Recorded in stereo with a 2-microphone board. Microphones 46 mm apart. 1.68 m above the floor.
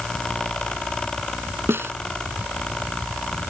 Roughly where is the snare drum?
Right.